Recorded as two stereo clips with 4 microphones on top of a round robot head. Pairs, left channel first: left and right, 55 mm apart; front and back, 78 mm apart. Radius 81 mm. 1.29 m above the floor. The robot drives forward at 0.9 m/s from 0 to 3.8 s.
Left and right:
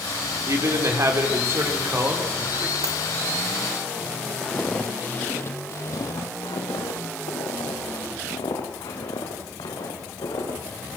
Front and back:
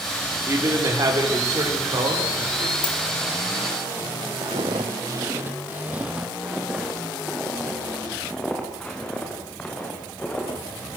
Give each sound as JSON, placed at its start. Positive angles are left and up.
{"t": 0.5, "sound": "a man speaking", "azimuth_deg": -120, "distance_m": 4.0}
{"t": 2.8, "sound": "a dropped coin", "azimuth_deg": -40, "distance_m": 0.9}
{"t": 4.4, "sound": "footsteps", "azimuth_deg": 165, "distance_m": 1.9}